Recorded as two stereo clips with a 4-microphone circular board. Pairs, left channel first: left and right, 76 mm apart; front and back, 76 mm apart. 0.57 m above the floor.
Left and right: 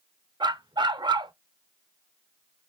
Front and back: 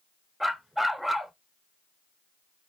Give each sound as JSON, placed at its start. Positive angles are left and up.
{"t": 0.4, "sound": "a dog barking", "azimuth_deg": -95, "distance_m": 0.6}